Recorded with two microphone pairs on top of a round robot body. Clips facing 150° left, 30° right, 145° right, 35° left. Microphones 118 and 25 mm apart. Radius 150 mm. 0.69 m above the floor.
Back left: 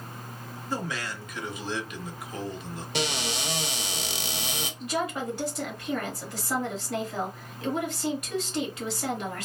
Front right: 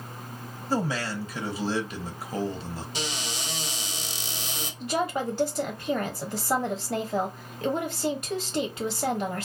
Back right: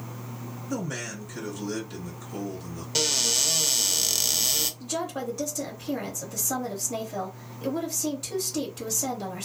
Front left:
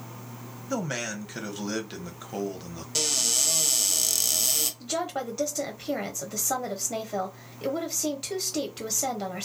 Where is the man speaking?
5° left, 1.0 m.